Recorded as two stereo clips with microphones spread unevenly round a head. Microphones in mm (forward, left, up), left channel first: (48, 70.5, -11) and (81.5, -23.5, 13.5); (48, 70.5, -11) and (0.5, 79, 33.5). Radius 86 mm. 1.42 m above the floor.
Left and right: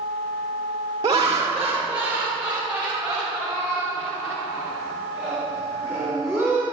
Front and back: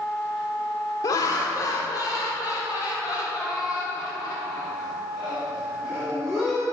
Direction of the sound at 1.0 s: 20° right.